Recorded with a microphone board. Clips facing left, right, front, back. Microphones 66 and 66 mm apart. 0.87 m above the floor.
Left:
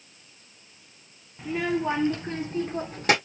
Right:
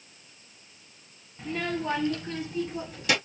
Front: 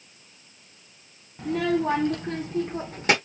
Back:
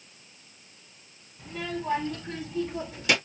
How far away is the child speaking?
About 1.0 m.